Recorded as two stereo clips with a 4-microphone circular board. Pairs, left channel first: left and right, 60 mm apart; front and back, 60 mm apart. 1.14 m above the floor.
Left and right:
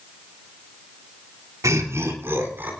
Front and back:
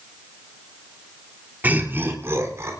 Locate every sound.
1.6 s laughter: 120° right, 2.5 m; by 2.7 s 150° right, 3 m